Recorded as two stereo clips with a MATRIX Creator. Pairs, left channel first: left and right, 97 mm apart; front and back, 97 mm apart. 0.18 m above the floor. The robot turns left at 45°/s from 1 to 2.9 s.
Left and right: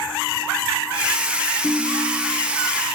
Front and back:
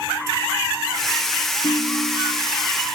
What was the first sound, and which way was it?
A ringtone, 15° left.